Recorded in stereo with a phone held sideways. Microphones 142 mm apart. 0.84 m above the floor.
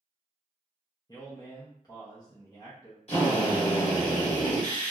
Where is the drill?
50° left (ahead or behind), 1.2 m.